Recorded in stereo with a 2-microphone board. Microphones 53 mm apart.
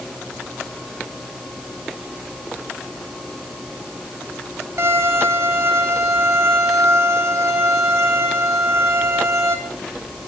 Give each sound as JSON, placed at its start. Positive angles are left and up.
{"t": 4.8, "sound": "a violin", "side_deg": -70, "distance_m": 2.5}